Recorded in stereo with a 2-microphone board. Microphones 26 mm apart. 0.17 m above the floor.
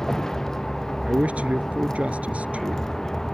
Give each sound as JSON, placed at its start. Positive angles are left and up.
{"t": 0.0, "sound": "a vehicle", "side_deg": 20}
{"t": 1.1, "sound": "a man speaking", "side_deg": -60}